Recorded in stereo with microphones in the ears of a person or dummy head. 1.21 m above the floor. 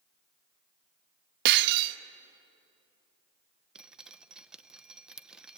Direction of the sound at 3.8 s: 10° right (ahead or behind).